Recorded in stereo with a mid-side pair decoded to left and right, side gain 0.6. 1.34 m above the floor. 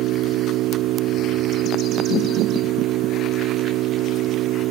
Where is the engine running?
65° right.